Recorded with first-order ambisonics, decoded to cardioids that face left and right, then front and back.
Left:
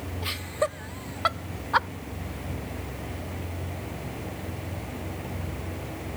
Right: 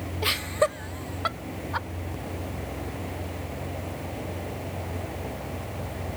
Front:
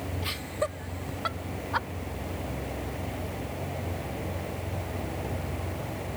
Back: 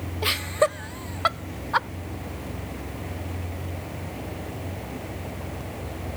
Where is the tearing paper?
No tearing paper in this recording.